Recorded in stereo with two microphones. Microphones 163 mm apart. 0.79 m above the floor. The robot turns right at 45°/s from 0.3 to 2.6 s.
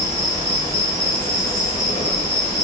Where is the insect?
55° left, 1.1 m; by 2.6 s 155° left, 1.1 m.